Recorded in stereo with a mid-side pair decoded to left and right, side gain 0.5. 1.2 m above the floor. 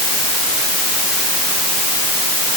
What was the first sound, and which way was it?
Only background noise.